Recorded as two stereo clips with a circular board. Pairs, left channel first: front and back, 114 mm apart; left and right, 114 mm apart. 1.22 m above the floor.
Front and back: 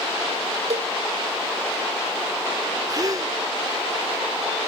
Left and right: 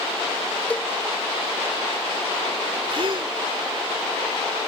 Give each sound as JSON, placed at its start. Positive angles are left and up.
{"t": 0.7, "sound": "a cowbell", "azimuth_deg": 170}
{"t": 2.9, "sound": "a gasp", "azimuth_deg": -125}